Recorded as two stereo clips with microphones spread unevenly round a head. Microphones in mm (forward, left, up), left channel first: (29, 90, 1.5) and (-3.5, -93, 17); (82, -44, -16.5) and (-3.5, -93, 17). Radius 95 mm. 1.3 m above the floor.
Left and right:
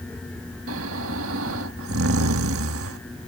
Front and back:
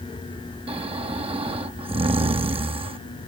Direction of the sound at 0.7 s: 125° right.